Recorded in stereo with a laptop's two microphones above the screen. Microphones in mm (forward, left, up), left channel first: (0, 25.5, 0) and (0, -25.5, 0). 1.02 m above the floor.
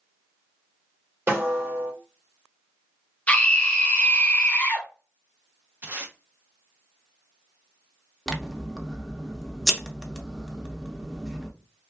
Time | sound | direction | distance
1.3 | a snare drum | 50° right (ahead or behind) | 1.4 m
3.3 | a scream | 25° left (ahead or behind) | 0.8 m
5.8 | tape being pulled | 40° right (ahead or behind) | 0.9 m
8.3 | scissors | 5° right (ahead or behind) | 0.6 m